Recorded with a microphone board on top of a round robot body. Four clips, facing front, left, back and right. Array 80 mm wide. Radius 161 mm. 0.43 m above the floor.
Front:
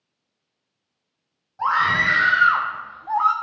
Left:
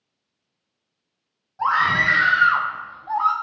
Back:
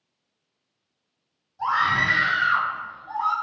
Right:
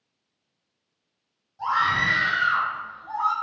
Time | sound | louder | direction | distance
1.6 | a scream | left 4 dB, front 2 dB | 40° left | 2.5 m